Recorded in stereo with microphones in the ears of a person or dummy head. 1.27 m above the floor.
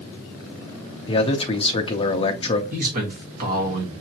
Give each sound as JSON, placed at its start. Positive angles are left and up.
{"t": 1.1, "sound": "a man speaking", "side_deg": 30, "distance_m": 0.6}
{"t": 2.7, "sound": "a man speaking", "side_deg": -40, "distance_m": 1.5}